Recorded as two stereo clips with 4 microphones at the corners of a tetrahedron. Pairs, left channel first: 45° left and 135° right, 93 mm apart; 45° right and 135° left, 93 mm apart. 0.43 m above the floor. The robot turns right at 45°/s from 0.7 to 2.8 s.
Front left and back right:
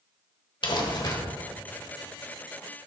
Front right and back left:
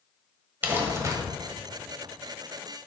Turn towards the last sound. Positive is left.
turn(degrees=160)